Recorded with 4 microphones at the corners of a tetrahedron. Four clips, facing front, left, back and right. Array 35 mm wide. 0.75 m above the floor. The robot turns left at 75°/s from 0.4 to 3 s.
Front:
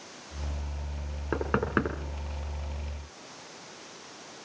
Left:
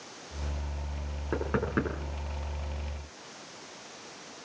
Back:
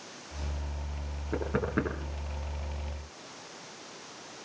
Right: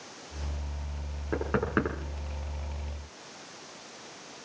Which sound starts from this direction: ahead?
Knocking, at 1.3 s.